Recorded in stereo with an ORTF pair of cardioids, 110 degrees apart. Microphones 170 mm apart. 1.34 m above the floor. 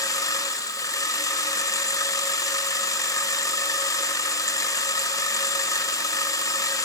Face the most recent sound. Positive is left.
turn(degrees=20)